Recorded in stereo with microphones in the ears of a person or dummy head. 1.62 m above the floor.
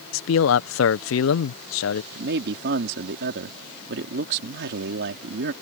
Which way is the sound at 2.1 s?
65° right (ahead or behind).